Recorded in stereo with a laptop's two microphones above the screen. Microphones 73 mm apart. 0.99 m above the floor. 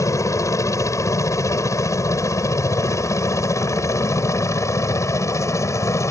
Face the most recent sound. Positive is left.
turn(degrees=40)  # may be behind; listen again after turning